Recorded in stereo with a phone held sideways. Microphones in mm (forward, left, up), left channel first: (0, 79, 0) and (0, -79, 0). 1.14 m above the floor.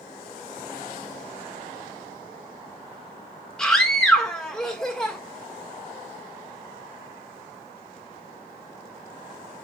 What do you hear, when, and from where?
3.6 s a scream: 5° left (ahead or behind), 1.7 m